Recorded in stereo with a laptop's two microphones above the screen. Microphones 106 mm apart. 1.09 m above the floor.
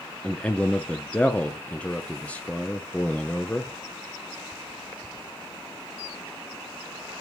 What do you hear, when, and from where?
0.2 s a man speaking: 15° left (ahead or behind), 0.5 m